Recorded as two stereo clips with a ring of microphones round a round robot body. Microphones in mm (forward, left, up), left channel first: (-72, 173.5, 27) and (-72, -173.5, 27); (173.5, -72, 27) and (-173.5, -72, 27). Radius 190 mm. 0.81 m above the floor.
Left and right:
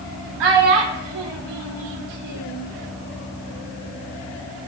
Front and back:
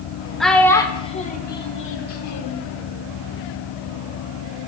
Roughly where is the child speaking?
Right.